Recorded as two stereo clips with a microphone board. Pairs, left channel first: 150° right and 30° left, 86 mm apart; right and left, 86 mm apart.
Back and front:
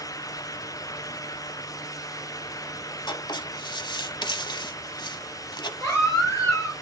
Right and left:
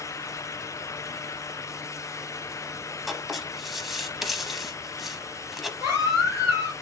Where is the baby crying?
150° left, 3 m.